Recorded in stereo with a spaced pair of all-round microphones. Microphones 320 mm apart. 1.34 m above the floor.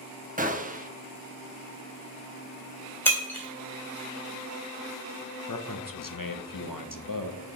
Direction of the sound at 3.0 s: 5° left (ahead or behind).